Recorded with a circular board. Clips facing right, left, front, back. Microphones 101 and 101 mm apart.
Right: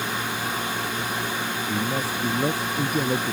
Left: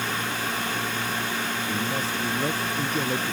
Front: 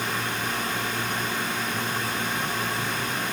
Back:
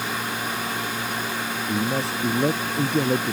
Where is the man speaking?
165° right.